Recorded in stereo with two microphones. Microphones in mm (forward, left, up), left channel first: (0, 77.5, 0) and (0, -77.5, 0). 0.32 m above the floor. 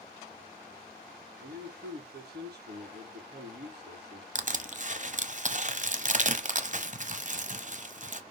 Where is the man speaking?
75° right (ahead or behind), 5.5 m.